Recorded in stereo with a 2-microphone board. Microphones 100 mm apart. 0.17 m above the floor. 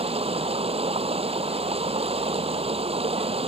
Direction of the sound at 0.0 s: 75° right (ahead or behind).